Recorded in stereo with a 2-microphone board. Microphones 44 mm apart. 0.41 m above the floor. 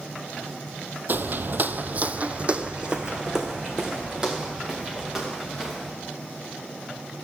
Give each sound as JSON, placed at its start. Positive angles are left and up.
{"t": 1.1, "sound": "footsteps", "side_deg": -45, "distance_m": 0.5}